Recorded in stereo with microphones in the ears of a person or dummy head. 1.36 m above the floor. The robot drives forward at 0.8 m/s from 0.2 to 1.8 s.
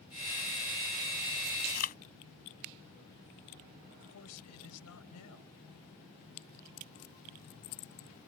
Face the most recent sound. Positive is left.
turn(degrees=80)